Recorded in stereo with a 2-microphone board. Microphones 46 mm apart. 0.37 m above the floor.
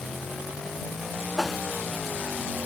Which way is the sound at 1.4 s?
Centre (ahead or behind).